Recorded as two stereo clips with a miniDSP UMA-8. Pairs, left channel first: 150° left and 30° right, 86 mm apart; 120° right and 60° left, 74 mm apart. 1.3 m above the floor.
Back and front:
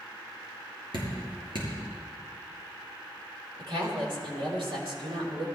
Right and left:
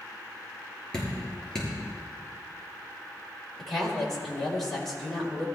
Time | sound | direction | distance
0.9 | dripping | 40° right | 6.5 m
3.6 | a woman speaking | 35° right | 5 m